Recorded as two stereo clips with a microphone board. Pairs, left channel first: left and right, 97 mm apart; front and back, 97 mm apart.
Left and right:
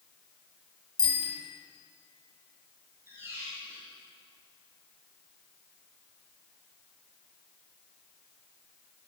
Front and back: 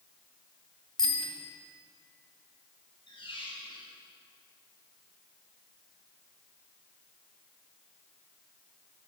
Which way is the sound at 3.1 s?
25° right.